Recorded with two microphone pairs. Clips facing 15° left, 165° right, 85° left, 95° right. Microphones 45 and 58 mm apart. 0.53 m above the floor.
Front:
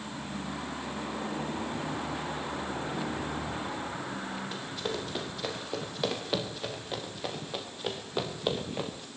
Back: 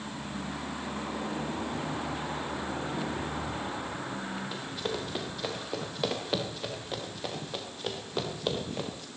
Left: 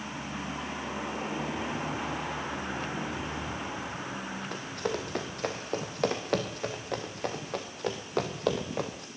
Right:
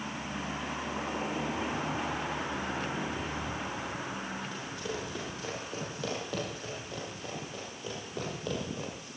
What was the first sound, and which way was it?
Running footsteps, 115° left.